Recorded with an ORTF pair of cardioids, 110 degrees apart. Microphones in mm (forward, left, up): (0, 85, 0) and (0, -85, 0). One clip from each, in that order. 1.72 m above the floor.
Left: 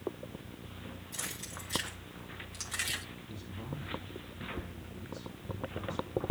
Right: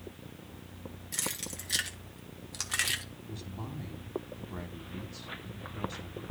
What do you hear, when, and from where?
1.1 s keys jangling: 65° right, 2 m; by 3.0 s 25° right, 0.9 m
3.3 s a man speaking: 65° right, 3 m